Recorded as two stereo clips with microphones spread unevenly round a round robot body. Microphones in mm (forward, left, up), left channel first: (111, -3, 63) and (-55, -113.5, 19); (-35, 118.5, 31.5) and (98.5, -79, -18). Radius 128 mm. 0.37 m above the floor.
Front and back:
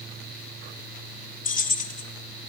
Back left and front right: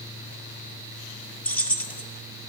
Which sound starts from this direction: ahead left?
Keys jangling, at 1.4 s.